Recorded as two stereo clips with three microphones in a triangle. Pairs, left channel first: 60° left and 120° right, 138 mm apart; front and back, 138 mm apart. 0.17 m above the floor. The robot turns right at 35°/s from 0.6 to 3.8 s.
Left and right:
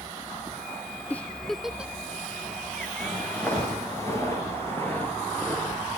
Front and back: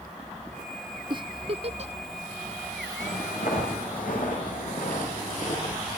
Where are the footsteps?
30° right, 7 m; by 6.0 s 20° right, 10 m.